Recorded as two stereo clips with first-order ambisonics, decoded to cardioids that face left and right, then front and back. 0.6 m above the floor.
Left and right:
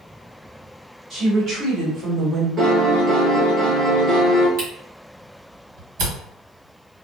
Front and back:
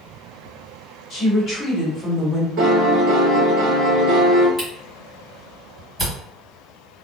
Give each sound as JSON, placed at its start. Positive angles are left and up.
{"t": 1.1, "sound": "a woman speaking", "azimuth_deg": -30, "distance_m": 1.4}
{"t": 2.6, "sound": "a piano", "azimuth_deg": -145, "distance_m": 1.1}
{"t": 4.6, "sound": "a camera shutter", "azimuth_deg": -95, "distance_m": 1.5}